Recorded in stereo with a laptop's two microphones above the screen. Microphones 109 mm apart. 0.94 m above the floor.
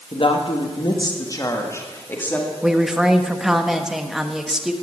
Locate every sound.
0.1 s a woman speaking: 55° left (ahead or behind), 1.8 m; by 2.5 s 15° left (ahead or behind), 2 m
2.6 s a woman speaking: 5° right (ahead or behind), 0.9 m